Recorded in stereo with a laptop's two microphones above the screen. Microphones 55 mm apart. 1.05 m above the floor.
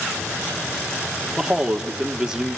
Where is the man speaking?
15° right (ahead or behind), 2 m.